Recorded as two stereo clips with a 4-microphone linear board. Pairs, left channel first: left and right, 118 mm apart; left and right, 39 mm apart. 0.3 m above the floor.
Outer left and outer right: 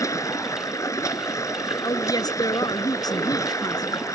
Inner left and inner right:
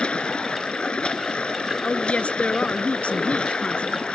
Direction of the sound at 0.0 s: 30° left (ahead or behind).